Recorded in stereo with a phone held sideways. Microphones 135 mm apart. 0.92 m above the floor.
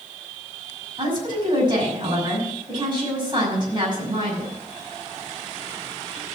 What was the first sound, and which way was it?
A woman speaking, 35° right (ahead or behind).